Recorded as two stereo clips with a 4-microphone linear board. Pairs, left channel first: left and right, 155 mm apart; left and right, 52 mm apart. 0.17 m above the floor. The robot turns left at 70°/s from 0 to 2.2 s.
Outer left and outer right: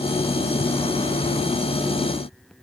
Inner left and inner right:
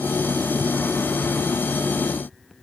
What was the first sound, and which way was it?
Only background noise.